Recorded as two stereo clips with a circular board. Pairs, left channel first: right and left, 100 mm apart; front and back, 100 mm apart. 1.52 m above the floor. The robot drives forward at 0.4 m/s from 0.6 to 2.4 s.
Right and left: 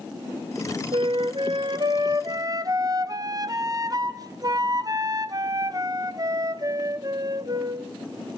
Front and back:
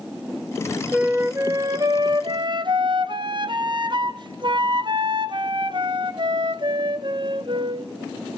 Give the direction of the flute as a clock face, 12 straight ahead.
9 o'clock.